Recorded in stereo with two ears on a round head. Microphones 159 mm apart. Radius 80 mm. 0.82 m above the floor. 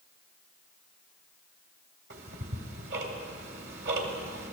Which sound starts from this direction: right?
Ticking, at 2.1 s.